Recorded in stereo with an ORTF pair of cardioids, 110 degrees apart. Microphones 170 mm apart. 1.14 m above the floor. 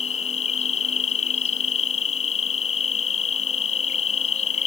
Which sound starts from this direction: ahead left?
An insect, at 0.0 s.